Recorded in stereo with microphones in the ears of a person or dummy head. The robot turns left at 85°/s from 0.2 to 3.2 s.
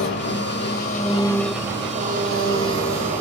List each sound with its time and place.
0.0 s an engine running: 110° left, 3.5 m; by 3.2 s 145° right, 3.5 m